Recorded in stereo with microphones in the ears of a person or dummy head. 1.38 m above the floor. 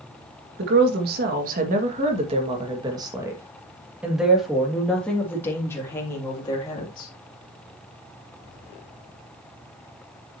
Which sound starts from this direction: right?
A woman speaking, at 0.6 s.